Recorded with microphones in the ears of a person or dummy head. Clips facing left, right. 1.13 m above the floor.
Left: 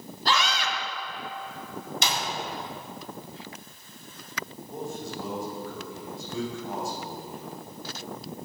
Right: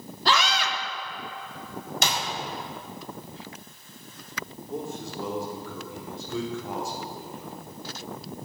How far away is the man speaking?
About 4 m.